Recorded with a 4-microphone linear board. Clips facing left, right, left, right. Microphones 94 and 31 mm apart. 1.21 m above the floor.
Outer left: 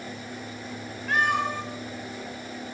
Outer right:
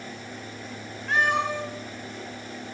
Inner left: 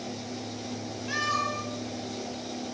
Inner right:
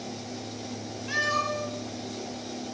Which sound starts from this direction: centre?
A cat meowing, at 1.1 s.